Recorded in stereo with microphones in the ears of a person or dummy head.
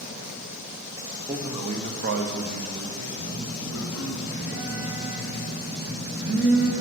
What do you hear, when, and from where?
1.3 s a man speaking: 5° right (ahead or behind), 0.7 m; by 4.2 s 85° right, 2 m
3.1 s a phone buzzing: 30° right (ahead or behind), 1.5 m